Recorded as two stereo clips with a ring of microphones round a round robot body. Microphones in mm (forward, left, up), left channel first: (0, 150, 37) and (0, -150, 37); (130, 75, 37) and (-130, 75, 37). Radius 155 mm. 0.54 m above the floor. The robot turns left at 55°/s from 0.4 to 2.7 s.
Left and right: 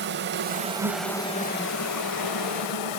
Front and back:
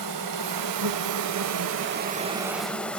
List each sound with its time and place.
0.0 s an insect: 145° right, 0.8 m; by 3.0 s 85° left, 0.8 m